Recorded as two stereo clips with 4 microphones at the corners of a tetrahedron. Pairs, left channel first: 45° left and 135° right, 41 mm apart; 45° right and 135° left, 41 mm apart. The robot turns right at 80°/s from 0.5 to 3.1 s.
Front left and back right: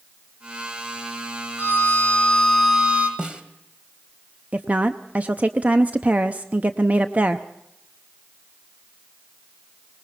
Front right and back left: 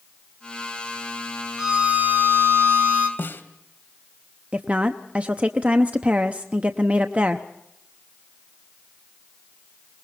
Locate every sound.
1.6 s a violin: 60° left, 3 m; by 3.1 s straight behind, 3 m
3.2 s a snare drum: 70° right, 1.7 m
4.5 s a woman speaking: straight behind, 0.7 m